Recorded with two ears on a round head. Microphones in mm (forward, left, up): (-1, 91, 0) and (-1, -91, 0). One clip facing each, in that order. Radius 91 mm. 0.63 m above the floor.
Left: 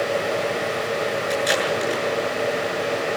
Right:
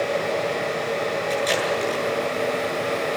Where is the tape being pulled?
10° left (ahead or behind), 8 m.